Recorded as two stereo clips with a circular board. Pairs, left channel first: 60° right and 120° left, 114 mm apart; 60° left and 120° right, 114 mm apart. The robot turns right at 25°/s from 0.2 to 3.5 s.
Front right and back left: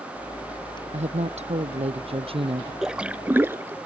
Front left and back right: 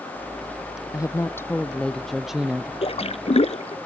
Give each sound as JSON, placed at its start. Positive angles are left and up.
{"t": 0.9, "sound": "a woman speaking", "azimuth_deg": 120}
{"t": 2.8, "sound": "a splash", "azimuth_deg": 35}